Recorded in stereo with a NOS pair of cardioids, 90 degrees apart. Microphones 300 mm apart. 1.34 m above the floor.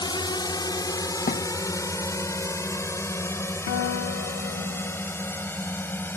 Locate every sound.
0.0 s a drone: 15° left; by 6.2 s 5° left
1.3 s a thud: 30° left
3.7 s a guitar: 50° left